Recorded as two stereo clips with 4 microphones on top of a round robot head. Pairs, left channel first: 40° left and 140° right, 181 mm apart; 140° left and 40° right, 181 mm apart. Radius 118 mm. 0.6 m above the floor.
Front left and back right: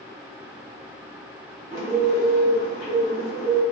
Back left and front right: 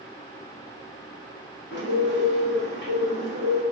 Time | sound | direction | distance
1.7 | a bird | 150° left | 1.5 m